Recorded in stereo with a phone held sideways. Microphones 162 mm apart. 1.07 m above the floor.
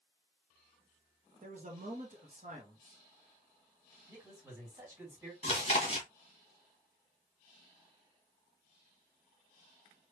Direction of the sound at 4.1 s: 20° right (ahead or behind).